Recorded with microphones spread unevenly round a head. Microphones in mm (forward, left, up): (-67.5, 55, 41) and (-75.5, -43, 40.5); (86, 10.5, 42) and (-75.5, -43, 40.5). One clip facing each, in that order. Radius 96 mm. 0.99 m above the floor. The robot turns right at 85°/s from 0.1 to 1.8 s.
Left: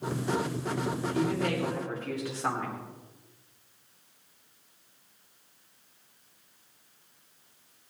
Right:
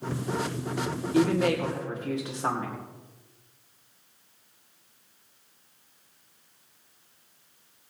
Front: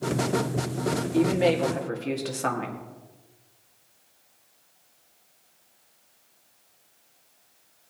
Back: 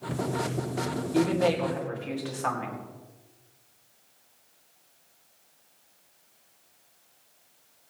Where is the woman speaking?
80° right, 2.5 m; by 2.8 s 25° right, 2.5 m.